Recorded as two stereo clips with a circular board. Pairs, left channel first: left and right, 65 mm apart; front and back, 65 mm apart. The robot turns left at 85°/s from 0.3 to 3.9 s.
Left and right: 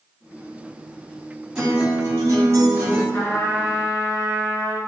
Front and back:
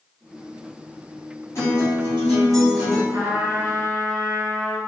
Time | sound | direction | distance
1.6 | a guitar | 15° right | 1.4 m
3.1 | a trumpet | 155° left | 1.1 m